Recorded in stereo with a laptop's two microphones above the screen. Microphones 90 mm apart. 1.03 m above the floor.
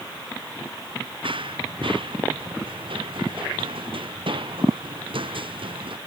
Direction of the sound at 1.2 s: 70° right (ahead or behind).